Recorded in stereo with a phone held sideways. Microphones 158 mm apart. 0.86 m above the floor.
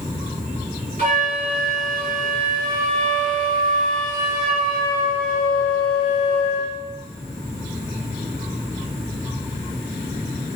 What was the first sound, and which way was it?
A flute, 50° right (ahead or behind).